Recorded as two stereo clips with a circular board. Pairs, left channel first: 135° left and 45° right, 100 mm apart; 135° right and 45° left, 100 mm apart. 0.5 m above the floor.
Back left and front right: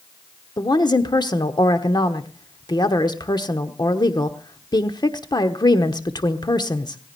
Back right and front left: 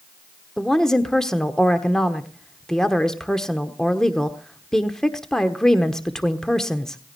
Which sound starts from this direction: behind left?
A woman speaking, at 0.6 s.